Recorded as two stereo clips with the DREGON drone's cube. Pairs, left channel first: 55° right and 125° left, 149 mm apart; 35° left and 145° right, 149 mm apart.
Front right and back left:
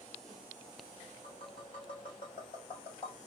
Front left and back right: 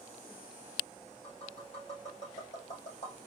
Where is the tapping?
5° right, 3.5 m.